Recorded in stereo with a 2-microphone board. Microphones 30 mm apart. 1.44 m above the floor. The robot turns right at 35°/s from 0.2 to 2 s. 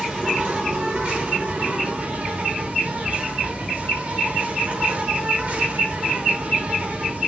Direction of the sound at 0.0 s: 150° right.